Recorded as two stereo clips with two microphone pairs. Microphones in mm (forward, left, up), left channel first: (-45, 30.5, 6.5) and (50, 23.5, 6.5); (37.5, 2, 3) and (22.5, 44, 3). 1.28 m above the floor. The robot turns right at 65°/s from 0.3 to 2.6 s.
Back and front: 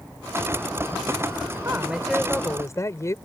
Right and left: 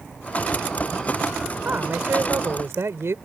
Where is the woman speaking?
55° left; by 3.1 s 120° left.